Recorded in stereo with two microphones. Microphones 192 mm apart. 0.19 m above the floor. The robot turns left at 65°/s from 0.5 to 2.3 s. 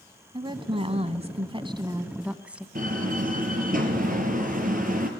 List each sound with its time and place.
0.3 s a woman speaking: 50° right, 1.4 m; by 2.6 s 170° right, 1.4 m
2.8 s a door slam: 45° right (ahead or behind), 3.5 m